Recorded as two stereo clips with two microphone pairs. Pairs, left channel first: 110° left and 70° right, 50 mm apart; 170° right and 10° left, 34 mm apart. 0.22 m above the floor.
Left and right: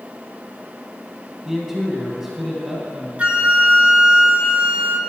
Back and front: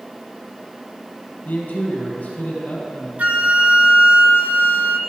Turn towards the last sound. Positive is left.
turn(degrees=-15)